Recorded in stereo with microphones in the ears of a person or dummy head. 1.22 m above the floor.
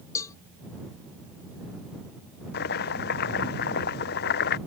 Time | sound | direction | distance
0.1 | a cowbell | 20° left (ahead or behind) | ?
2.5 | chopping | 50° left (ahead or behind) | ?